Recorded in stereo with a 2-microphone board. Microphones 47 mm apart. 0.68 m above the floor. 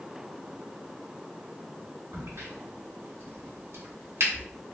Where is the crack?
70° right (ahead or behind), 1.2 m.